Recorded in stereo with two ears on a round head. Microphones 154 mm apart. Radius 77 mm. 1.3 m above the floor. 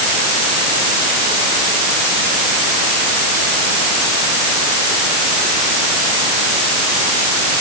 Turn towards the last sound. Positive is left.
No sound to turn to.